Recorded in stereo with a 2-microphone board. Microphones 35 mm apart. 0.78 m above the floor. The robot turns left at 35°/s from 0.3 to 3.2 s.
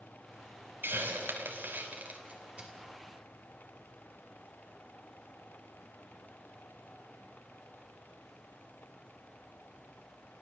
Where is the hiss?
80° right, 3 m; by 2.7 s 30° right (ahead or behind), 3 m.